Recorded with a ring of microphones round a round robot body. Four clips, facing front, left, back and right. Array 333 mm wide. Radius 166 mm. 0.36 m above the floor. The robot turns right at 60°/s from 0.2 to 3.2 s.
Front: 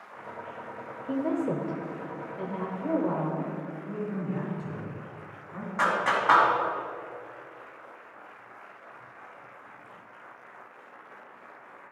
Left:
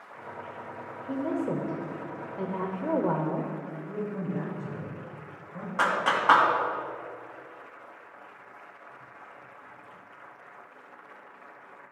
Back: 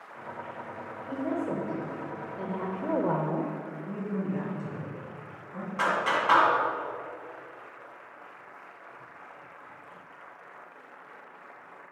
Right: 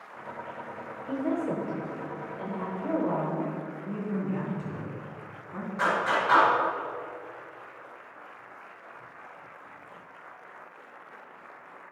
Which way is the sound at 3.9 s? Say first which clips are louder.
Right 2 dB, back 1 dB; 70° right.